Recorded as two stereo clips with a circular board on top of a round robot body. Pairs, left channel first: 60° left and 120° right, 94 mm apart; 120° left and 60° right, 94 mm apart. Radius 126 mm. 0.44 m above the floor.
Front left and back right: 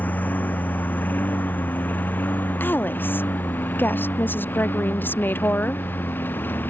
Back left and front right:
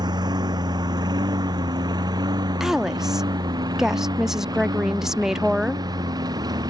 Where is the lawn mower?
15° right; by 6.7 s 10° right.